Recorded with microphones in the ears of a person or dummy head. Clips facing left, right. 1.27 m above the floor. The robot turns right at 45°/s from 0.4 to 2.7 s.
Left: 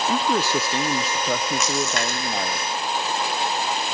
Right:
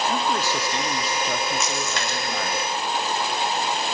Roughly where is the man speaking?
Left.